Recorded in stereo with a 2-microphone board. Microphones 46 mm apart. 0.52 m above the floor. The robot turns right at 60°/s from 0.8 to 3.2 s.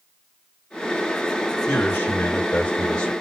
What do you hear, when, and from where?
1.7 s a man speaking: 75° left, 2.0 m; by 3.1 s 160° left, 2.0 m